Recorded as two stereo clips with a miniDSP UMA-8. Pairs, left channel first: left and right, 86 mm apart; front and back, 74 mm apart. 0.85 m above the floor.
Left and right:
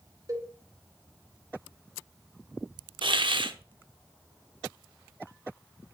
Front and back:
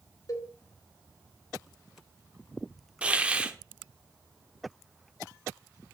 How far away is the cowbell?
About 1.9 m.